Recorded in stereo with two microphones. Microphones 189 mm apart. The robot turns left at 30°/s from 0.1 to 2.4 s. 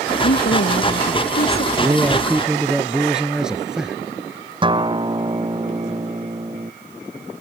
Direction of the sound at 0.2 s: 105° left.